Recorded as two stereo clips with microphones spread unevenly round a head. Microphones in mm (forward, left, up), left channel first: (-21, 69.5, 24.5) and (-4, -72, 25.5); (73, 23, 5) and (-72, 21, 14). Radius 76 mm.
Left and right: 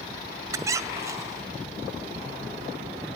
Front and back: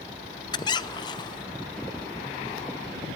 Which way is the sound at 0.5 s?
35° right.